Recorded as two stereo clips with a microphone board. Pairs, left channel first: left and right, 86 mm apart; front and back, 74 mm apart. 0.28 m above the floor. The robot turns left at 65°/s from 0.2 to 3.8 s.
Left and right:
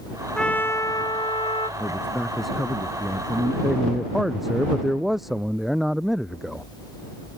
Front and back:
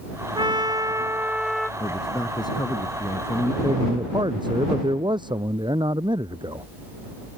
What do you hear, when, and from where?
0.3 s a trumpet: 170° left; by 1.7 s 85° left
1.8 s a man speaking: 45° left; by 3.5 s 70° right
3.6 s a man speaking: 165° right; by 6.7 s straight behind